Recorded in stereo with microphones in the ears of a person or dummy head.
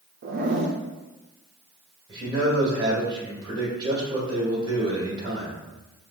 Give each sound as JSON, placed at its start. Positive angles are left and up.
{"t": 0.2, "sound": "a zipper", "side_deg": -50, "distance_m": 0.5}
{"t": 2.1, "sound": "a man speaking", "side_deg": -25, "distance_m": 2.0}